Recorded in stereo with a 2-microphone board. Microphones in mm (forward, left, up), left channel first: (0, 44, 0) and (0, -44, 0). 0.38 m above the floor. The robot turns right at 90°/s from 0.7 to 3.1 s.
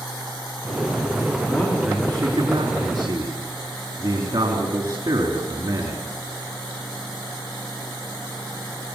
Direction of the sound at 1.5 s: 155° left.